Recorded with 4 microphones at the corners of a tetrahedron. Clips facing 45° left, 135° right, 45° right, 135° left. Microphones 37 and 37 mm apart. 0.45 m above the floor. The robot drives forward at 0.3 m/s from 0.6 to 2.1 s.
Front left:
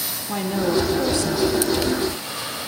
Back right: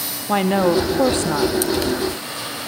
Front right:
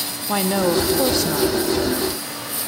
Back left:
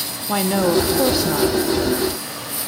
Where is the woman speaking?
135° right, 0.9 m; by 1.5 s 150° right, 1.1 m.